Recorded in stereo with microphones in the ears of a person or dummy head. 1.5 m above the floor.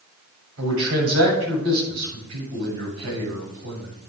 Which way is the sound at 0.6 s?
85° right.